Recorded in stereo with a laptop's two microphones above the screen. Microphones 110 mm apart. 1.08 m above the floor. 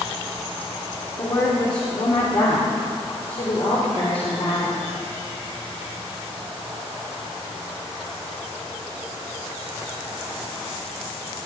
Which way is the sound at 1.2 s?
40° left (ahead or behind).